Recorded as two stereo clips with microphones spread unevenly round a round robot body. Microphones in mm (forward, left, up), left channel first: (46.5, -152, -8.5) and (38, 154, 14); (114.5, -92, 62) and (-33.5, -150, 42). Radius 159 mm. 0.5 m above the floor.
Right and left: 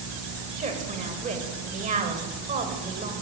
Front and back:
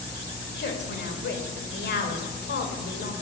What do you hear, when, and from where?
0.6 s a woman speaking: 25° left, 3 m